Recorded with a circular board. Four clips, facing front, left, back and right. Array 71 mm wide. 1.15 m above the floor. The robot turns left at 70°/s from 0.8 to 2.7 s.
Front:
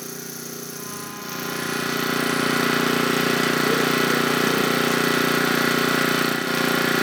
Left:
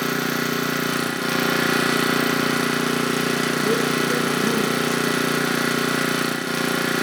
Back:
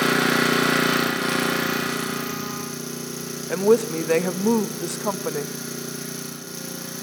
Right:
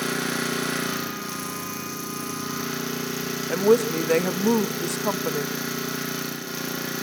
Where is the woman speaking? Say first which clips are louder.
Right 1 dB, back 2 dB; 140° right, 1.0 m.